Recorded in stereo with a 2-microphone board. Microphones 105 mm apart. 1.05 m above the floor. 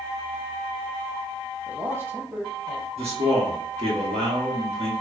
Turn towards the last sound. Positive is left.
turn(degrees=-80)